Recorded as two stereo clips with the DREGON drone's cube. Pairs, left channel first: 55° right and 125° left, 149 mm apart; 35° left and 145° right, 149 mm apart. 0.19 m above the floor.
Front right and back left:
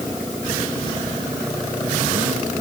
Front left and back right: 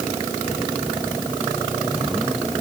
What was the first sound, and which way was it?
Only background noise.